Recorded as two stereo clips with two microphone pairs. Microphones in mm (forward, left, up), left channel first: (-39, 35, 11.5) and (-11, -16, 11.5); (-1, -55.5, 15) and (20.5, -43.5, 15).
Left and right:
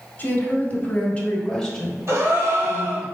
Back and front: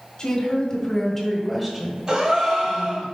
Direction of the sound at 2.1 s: 30° right.